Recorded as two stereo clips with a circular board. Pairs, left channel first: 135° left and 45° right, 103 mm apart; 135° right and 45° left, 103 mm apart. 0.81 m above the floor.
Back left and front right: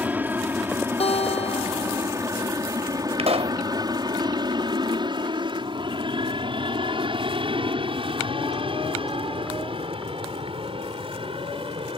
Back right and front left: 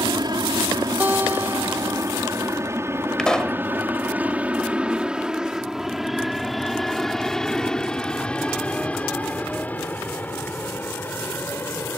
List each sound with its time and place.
0.0 s an aircraft: 25° left; by 12.0 s 70° right
1.0 s a guitar: 120° left
3.2 s a pop: 50° right